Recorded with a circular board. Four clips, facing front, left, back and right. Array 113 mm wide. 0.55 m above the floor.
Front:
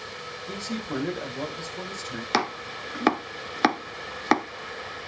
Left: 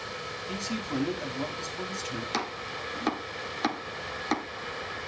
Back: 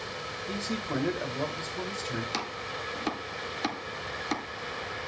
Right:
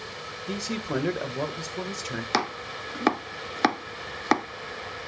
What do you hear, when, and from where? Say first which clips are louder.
0.5 s a man speaking: right 4 dB, front 1 dB; 95° right, 2.0 m
2.3 s chopping: right 9 dB, front 7 dB; 35° right, 0.6 m